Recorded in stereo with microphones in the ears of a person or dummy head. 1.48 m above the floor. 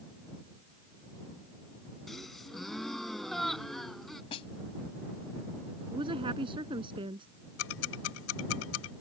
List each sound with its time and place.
2.1 s a gasp: 5° left (ahead or behind)
4.3 s a snare drum: 35° left (ahead or behind)
5.9 s a woman speaking: 30° right (ahead or behind)
7.6 s ticking: 80° left